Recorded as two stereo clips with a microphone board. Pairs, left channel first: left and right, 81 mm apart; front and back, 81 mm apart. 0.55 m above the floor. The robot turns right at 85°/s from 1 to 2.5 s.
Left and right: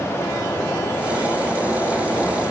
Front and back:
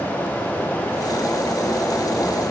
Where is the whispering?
I don't hear whispering.